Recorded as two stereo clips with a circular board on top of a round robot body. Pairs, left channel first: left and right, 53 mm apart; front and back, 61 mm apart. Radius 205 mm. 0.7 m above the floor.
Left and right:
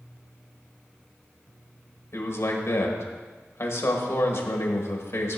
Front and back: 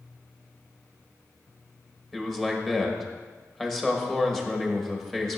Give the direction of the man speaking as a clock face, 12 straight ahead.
9 o'clock.